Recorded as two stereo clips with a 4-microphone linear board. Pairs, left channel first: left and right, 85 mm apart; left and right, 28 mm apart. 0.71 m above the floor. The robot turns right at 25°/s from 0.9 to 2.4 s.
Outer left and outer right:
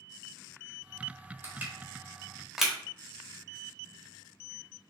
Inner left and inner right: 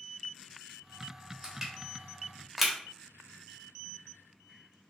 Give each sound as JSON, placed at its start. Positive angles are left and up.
{"t": 1.4, "sound": "crushing", "side_deg": -20, "distance_m": 1.2}